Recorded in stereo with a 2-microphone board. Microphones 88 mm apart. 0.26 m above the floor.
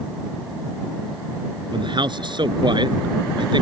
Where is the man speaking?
65° right (ahead or behind).